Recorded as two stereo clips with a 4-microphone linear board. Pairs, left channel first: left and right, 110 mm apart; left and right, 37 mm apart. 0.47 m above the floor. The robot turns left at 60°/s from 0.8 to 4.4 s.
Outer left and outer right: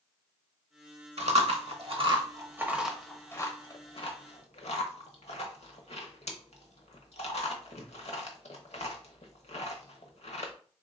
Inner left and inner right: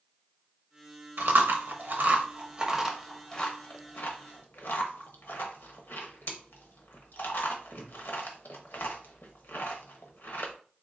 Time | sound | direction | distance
1.2 | chewing | 70° right (ahead or behind) | 0.9 m